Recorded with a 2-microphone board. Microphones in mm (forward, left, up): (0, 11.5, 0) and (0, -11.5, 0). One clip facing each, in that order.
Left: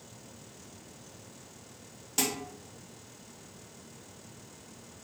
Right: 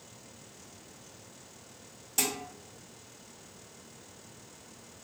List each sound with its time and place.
2.2 s dishes clattering: 15° left (ahead or behind), 1.0 m